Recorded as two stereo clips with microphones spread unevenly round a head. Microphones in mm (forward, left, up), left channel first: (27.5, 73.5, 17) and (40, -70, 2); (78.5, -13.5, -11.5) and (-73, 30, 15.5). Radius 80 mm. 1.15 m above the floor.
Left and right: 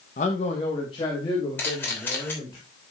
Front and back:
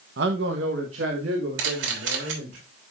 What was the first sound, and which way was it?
A man speaking, 145° left.